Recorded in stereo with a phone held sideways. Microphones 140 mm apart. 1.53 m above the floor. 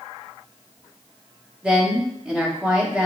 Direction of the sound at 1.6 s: 10° right (ahead or behind).